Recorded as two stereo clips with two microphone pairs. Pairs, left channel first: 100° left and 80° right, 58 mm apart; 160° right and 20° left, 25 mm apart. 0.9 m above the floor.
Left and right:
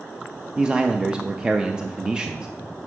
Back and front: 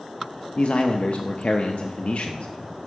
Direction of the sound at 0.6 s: 150° right.